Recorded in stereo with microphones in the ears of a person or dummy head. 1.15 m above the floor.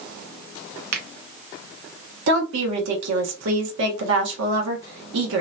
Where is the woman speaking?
80° right, 1.2 m.